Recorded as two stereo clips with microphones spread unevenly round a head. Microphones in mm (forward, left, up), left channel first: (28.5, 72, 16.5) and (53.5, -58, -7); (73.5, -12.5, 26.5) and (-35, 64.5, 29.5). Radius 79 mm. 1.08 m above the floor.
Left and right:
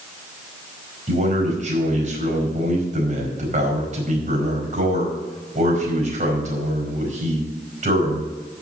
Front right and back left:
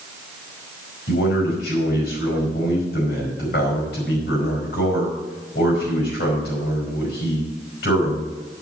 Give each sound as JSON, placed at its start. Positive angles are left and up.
{"t": 1.1, "sound": "a man speaking", "azimuth_deg": -45, "distance_m": 4.5}